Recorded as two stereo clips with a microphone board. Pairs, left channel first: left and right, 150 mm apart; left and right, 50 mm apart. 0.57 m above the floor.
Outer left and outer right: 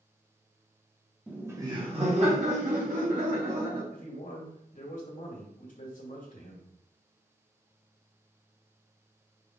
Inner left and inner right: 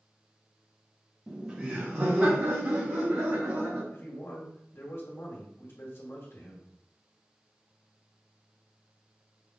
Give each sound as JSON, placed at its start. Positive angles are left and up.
{"t": 1.3, "sound": "laughter", "side_deg": -5, "distance_m": 0.8}
{"t": 3.9, "sound": "a man speaking", "side_deg": 60, "distance_m": 1.6}